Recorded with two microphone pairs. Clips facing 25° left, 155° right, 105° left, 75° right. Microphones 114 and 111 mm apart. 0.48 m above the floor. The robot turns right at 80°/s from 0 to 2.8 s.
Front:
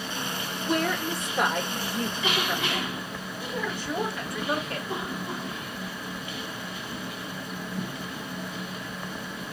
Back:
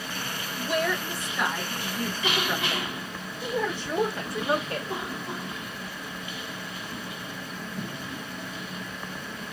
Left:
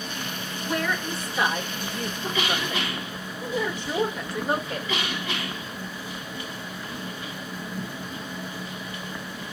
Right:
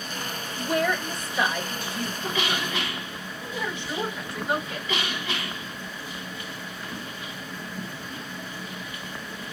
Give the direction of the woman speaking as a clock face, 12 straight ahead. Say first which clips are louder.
Even, right 3 dB; 1 o'clock.